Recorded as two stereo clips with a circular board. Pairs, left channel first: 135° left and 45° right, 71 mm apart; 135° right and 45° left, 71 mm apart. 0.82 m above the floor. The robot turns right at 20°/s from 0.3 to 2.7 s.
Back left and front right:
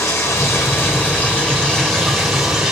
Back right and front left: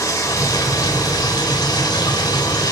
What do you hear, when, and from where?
0.0 s running water: 175° right, 2.5 m; by 2.7 s 125° right, 2.5 m